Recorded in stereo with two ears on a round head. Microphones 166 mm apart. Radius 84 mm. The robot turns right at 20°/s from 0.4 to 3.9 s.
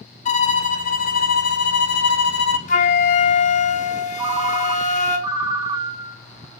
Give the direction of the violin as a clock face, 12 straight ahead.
10 o'clock.